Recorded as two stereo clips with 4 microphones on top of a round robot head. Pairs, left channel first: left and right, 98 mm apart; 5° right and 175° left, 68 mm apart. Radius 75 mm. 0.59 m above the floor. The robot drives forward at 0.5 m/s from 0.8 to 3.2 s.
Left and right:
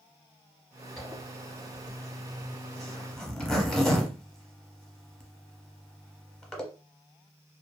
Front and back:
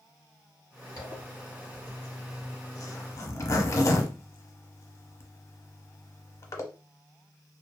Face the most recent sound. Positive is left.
turn(degrees=5)